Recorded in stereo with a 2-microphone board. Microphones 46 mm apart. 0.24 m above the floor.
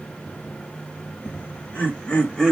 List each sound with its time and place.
1.2 s laughter: 45° left (ahead or behind), 1.7 m; by 2.5 s 10° left (ahead or behind), 1.3 m